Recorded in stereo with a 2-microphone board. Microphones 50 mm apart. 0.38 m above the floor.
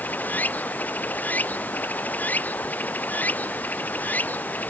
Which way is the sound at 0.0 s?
30° left (ahead or behind).